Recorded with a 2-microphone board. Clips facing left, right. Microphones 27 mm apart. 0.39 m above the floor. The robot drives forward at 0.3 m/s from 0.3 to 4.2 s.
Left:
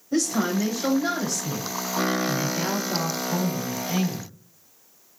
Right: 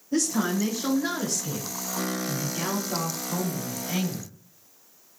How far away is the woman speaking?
About 1.2 m.